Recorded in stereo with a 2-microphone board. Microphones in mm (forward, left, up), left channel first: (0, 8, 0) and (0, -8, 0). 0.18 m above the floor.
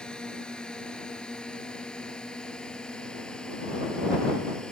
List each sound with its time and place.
0.0 s a drone: 60° left (ahead or behind)